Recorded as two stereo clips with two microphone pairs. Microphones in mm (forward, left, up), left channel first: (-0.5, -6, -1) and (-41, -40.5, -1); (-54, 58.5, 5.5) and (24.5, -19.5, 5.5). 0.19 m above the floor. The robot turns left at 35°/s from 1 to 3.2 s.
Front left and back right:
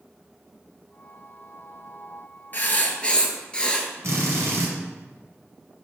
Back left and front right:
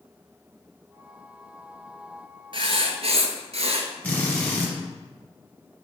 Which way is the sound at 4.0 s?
155° right.